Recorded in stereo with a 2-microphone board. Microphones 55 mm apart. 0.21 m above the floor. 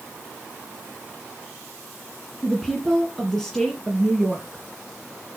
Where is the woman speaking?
Centre (ahead or behind), 1.9 m.